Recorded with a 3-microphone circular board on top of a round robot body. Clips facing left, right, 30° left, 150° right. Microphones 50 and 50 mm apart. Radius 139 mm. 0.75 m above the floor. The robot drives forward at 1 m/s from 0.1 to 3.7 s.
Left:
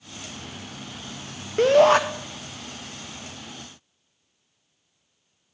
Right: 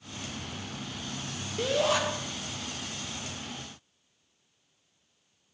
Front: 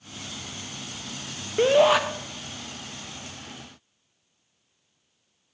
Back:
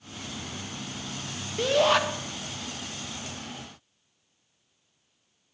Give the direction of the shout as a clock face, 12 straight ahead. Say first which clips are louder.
Left 11 dB, front 4 dB; 10 o'clock.